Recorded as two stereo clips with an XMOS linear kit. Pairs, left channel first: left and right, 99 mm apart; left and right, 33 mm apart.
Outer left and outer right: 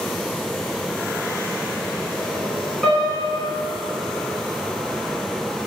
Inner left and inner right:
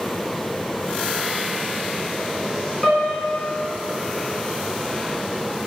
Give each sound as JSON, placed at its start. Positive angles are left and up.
{"t": 2.8, "sound": "a piano", "side_deg": 5, "distance_m": 1.0}